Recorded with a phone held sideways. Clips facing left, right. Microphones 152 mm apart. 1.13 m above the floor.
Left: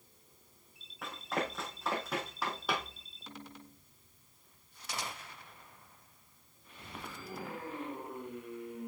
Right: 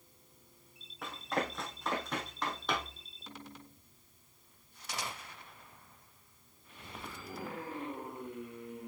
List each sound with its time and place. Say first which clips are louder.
1.0 s running footsteps: right 1 dB; centre (ahead or behind), 3.5 m; by 3.0 s 10° left (ahead or behind), 2 m